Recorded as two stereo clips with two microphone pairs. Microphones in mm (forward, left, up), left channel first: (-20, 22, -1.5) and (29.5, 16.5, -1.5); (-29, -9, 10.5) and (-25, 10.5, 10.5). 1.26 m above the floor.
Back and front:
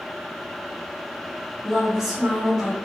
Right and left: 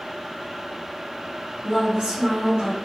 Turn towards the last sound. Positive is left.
turn(degrees=75)